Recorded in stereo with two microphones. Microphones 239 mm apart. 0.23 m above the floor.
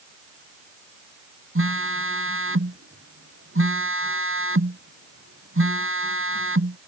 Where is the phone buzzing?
60° right (ahead or behind).